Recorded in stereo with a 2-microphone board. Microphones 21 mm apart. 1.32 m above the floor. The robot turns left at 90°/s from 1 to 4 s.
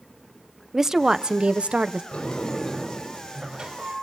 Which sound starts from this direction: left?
A sliding door, at 2.1 s.